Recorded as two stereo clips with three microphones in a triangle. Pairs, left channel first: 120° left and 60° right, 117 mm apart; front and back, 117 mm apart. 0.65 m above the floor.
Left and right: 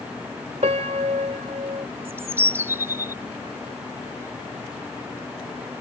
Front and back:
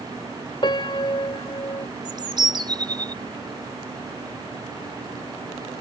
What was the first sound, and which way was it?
A piano, 45° right.